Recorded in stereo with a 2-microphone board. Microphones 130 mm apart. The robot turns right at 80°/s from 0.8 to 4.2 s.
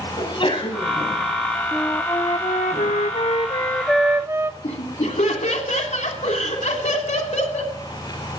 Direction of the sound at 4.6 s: 65° left (ahead or behind).